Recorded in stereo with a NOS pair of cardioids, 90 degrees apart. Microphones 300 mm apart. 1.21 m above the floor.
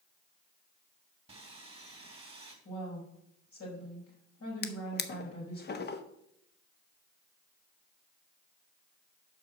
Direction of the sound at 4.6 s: 35° left.